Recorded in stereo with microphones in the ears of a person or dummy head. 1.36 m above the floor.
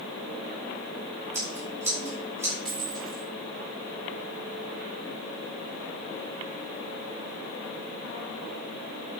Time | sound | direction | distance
1.3 | scissors | 15° right (ahead or behind) | 4.5 m
2.6 | a dropped coin | centre (ahead or behind) | 1.8 m